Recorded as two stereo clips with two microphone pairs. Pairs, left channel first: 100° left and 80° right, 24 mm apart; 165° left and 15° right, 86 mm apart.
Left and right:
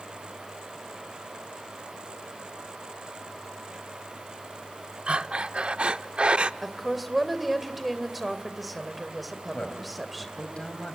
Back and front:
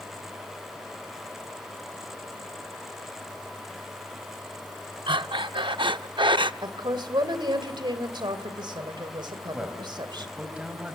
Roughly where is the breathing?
Ahead right.